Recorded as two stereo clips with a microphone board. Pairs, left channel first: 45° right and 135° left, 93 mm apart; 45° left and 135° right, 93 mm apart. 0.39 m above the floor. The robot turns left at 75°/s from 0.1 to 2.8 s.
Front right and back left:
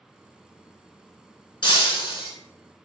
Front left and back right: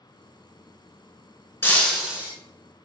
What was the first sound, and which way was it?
Breaking glass, 15° right.